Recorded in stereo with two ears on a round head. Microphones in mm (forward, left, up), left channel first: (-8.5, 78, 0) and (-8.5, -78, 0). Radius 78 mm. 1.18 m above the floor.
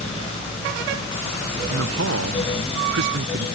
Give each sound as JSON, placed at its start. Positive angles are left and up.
{"t": 1.7, "sound": "a man speaking", "side_deg": -85}